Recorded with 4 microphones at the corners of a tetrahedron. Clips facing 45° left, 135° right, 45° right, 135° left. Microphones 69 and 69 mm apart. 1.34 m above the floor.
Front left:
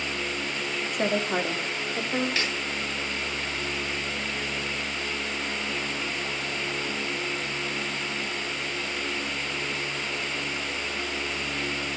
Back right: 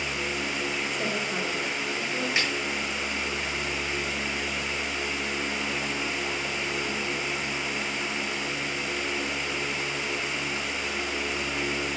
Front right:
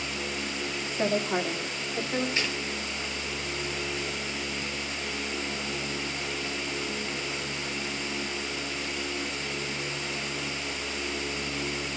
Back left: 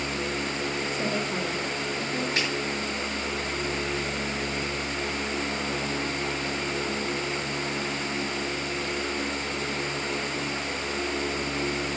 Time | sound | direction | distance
0.9 | a woman speaking | 10° left | 2 m
2.4 | a snare drum | 160° left | 7 m